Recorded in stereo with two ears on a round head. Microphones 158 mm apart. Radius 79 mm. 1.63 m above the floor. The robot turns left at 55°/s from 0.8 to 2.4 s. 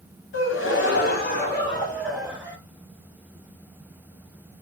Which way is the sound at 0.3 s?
75° left.